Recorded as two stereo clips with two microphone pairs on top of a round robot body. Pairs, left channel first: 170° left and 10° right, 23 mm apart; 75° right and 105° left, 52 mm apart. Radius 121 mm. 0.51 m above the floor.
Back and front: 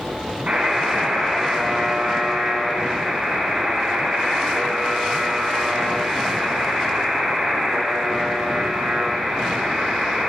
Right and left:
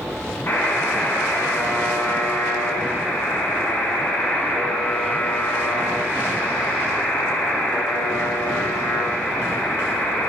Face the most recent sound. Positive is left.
turn(degrees=-30)